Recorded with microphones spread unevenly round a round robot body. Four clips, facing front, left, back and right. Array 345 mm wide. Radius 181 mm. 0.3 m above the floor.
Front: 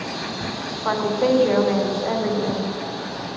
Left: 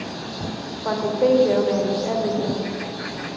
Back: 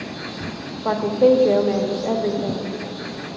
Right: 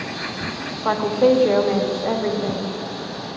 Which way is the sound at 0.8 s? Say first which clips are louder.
Right 2 dB, back 4 dB; 170° right.